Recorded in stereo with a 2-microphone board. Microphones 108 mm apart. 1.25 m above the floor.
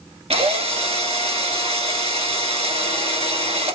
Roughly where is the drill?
Right.